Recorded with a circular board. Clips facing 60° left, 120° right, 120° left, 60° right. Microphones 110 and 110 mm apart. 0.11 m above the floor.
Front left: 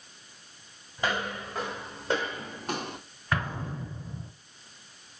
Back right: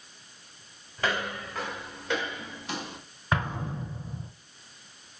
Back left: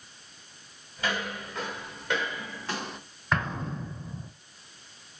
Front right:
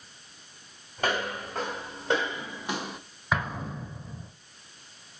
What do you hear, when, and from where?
1.0 s footsteps: 15° right, 2 m; by 3.0 s 25° left, 1.0 m
3.3 s an explosion: 135° right, 0.9 m